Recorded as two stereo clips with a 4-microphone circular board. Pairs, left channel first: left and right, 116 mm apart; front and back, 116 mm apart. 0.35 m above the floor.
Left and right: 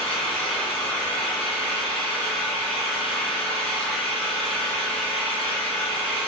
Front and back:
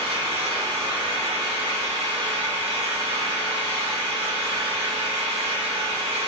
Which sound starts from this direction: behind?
An engine running, at 0.0 s.